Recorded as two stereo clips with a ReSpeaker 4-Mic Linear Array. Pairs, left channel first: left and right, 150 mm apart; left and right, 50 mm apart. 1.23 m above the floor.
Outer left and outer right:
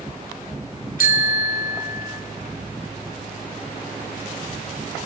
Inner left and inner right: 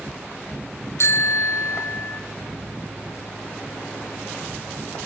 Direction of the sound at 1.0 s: 70° left (ahead or behind).